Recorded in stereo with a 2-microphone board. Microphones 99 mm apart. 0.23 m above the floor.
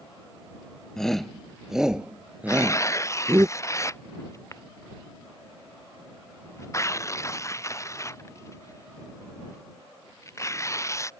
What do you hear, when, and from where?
1.0 s a shout: 5° left (ahead or behind); by 3.5 s 25° right (ahead or behind)
2.5 s tearing paper: 30° left (ahead or behind)